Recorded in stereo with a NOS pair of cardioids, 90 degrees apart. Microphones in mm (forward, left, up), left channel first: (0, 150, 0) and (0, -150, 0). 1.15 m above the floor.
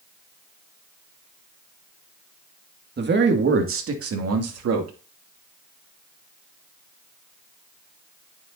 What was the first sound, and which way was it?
A man speaking, 35° right.